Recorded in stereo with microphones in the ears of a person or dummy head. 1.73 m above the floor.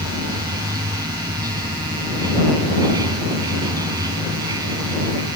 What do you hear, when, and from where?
0.0 s running water: 25° right (ahead or behind)